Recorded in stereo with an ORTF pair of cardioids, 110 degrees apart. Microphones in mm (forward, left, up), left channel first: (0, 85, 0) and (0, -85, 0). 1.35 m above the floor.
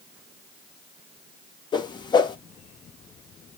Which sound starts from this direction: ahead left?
A whoosh, at 1.7 s.